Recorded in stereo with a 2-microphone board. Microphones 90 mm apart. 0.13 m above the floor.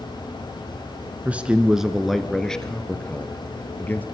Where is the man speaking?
15° right (ahead or behind), 1.6 m; by 4.0 s 20° left (ahead or behind), 3 m.